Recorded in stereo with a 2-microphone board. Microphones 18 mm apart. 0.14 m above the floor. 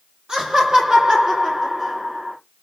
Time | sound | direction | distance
0.3 | laughter | 50° right (ahead or behind) | 4 m